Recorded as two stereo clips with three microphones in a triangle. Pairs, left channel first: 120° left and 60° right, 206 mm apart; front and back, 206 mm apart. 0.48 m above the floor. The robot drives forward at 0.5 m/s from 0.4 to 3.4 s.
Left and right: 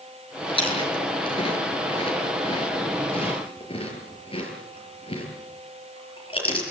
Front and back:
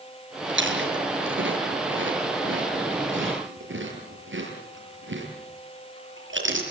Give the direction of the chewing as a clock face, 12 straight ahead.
6 o'clock.